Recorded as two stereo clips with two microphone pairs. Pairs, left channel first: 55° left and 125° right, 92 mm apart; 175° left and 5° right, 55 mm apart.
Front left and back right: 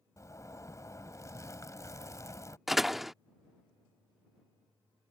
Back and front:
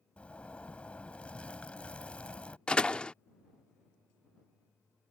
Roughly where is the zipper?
Left.